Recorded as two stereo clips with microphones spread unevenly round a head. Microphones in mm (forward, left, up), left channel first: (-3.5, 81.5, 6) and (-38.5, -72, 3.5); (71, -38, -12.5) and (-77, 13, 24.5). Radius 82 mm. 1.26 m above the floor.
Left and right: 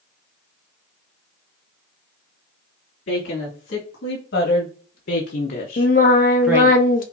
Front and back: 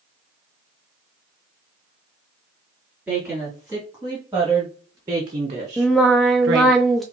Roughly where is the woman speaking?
Left.